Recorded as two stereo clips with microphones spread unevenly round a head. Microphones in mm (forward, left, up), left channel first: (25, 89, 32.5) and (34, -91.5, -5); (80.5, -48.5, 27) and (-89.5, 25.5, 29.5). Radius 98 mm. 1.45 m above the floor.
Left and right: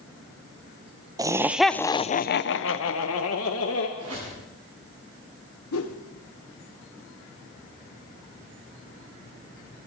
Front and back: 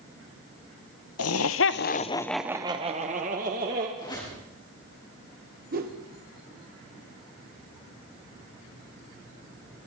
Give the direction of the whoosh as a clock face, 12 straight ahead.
8 o'clock.